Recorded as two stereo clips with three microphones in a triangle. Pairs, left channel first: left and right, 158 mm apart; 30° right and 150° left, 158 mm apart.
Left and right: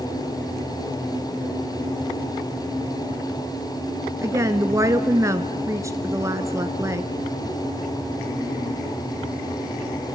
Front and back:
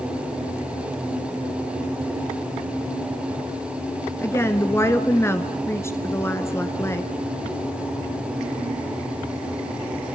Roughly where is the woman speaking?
Ahead right.